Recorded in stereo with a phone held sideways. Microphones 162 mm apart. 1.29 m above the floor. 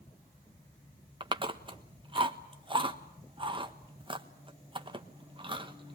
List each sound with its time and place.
1.2 s chewing: 30° right (ahead or behind), 1.2 m